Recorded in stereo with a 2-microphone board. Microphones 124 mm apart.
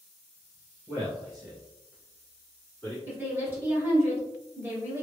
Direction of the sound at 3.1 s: 15° right (ahead or behind).